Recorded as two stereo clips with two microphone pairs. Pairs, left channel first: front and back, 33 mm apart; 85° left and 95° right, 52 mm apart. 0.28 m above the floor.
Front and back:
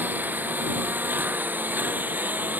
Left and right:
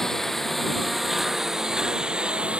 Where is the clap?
I don't hear a clap.